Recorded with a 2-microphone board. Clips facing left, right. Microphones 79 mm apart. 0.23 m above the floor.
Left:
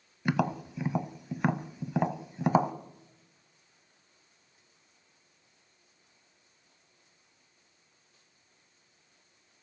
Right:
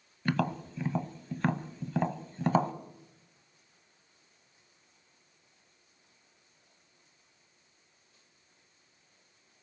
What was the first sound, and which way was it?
Tapping, 10° left (ahead or behind).